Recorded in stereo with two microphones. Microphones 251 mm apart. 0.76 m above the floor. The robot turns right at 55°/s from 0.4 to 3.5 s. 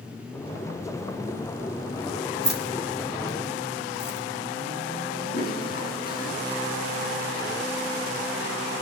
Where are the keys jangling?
50° right (ahead or behind), 3 m; by 4.2 s 10° left (ahead or behind), 3 m.